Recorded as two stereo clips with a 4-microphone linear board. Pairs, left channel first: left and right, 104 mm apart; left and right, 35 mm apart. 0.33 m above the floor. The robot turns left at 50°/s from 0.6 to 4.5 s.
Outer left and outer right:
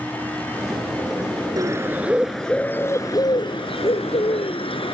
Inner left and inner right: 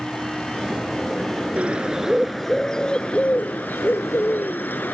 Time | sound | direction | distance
1.6 | a bird | 140° right | ?